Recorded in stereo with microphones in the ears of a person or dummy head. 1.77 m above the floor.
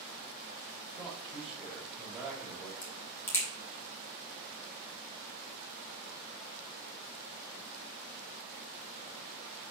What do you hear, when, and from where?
0.9 s a man speaking: 5° right (ahead or behind), 4 m
2.8 s a crack: 10° left (ahead or behind), 2.5 m